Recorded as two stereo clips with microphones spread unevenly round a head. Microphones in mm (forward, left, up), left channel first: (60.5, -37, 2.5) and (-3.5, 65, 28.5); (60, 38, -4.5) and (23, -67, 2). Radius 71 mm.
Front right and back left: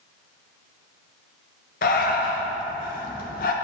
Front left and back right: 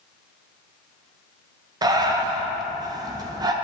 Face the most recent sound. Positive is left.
turn(degrees=-65)